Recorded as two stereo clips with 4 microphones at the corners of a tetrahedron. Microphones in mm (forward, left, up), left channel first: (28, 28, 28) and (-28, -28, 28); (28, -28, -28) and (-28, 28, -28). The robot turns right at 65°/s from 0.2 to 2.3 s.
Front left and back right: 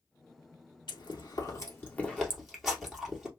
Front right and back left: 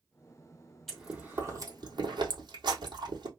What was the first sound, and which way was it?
Chewing, 45° left.